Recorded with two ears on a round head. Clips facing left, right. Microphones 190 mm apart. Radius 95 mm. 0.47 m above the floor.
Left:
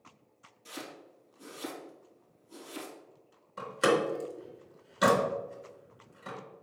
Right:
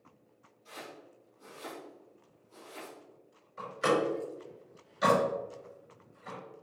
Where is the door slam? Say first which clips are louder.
Left 2 dB; 75° left (ahead or behind), 3.5 m.